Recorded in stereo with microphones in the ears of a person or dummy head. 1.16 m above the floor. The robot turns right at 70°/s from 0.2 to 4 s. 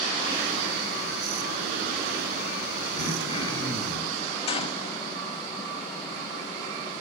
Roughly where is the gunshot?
Left.